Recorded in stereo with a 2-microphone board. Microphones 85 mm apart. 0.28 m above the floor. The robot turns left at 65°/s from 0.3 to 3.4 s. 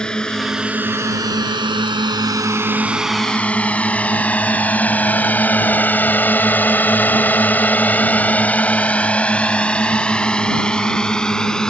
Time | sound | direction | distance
0.0 | a drone | 10° left (ahead or behind) | ?